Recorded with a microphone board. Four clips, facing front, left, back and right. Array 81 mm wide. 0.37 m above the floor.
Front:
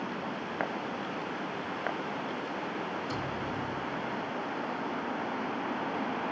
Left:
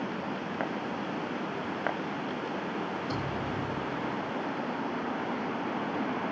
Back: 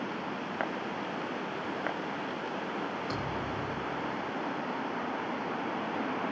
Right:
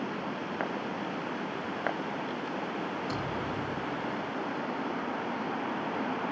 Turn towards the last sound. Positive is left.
turn(degrees=-170)